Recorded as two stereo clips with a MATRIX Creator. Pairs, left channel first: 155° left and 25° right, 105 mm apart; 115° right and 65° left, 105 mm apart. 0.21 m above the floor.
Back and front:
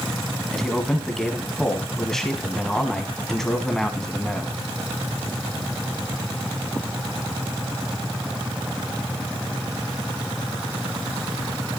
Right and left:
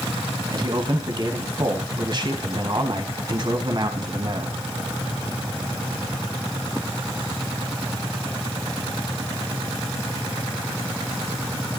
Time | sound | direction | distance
0.5 | a man speaking | 75° left | 1.3 m